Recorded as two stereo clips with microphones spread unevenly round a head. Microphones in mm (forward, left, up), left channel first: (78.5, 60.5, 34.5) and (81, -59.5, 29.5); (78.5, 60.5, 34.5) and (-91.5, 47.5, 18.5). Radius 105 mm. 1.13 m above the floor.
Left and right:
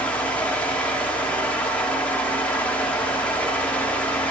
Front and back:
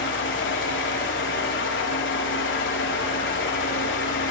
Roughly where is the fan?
Ahead.